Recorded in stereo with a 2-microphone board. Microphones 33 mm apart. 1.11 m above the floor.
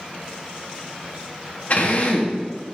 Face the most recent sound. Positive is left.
turn(degrees=50)  # may be behind; listen again after turning